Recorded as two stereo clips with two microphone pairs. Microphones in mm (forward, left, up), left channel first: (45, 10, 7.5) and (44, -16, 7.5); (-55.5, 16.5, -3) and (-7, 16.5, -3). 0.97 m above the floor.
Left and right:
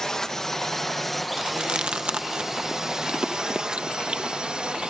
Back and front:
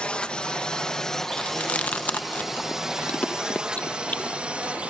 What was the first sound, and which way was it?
A drone, 135° left.